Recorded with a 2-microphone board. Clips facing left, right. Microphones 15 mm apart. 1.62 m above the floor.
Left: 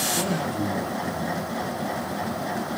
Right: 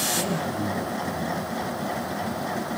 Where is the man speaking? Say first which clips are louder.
Left 1 dB; 80° left, 2.5 m.